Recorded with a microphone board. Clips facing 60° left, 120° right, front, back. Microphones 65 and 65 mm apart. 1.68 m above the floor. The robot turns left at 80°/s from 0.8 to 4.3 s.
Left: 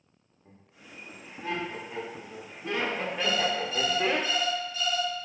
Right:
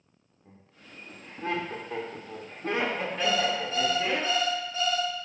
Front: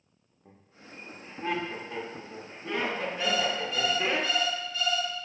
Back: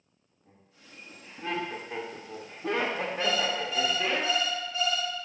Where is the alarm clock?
55° right, 0.9 m; by 5.1 s 145° right, 0.9 m.